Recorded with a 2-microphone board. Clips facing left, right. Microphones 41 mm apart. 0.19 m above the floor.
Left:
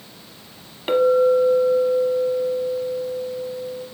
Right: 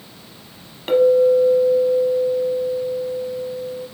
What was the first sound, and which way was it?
A clink, 10° left (ahead or behind).